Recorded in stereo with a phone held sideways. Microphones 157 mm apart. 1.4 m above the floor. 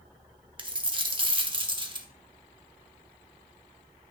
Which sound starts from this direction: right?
A dropped coin, at 0.6 s.